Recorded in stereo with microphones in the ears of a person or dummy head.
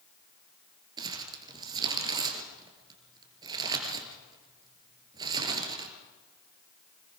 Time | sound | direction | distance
1.0 | crumpling | 20° right (ahead or behind) | 3 m